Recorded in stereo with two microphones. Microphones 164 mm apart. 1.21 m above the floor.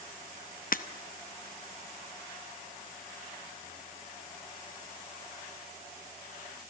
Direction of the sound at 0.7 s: 60° left (ahead or behind).